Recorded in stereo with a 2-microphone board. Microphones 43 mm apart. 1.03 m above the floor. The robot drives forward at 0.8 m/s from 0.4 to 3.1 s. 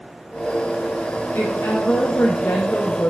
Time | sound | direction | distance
1.4 | a woman speaking | 55° left (ahead or behind) | 1.3 m